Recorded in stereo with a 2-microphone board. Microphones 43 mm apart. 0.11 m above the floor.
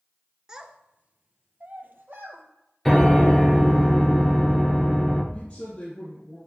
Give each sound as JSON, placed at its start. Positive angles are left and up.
{"t": 0.5, "sound": "a child speaking", "side_deg": -15, "distance_m": 0.7}
{"t": 2.9, "sound": "a piano", "side_deg": 5, "distance_m": 1.4}
{"t": 5.3, "sound": "a woman speaking", "side_deg": 30, "distance_m": 3.0}